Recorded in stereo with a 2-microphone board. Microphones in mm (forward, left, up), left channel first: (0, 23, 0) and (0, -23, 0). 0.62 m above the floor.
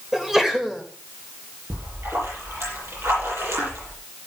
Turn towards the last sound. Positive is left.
turn(degrees=-75)  # may be behind; listen again after turning